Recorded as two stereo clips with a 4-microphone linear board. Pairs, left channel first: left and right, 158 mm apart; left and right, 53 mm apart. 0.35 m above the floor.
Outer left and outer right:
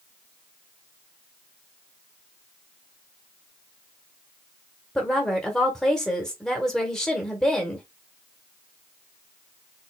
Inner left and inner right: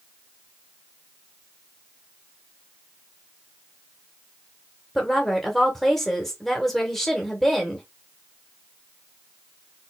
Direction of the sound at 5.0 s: 5° left (ahead or behind).